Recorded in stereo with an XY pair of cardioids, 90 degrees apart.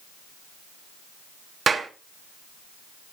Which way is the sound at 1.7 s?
40° right.